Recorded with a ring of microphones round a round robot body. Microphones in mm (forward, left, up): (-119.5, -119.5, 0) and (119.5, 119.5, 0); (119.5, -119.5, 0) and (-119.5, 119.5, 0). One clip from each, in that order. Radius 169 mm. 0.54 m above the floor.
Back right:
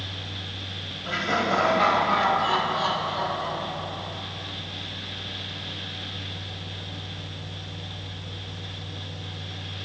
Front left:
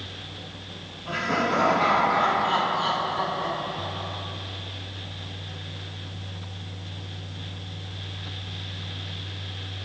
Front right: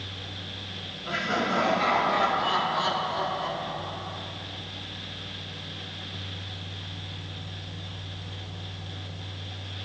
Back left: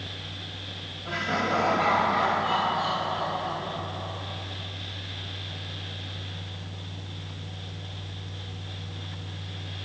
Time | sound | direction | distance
1.1 | laughter | 125° right | 3.5 m